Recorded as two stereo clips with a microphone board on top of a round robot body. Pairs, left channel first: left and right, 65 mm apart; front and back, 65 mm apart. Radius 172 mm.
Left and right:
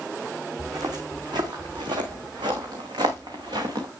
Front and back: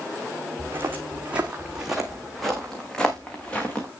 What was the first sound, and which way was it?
Footsteps, 125° right.